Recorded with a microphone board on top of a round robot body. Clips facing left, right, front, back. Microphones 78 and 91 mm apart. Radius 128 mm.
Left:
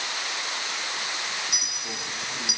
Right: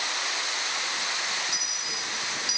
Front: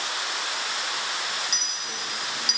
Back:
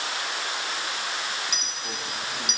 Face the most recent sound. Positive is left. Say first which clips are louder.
# even, back 1 dB
turn(degrees=130)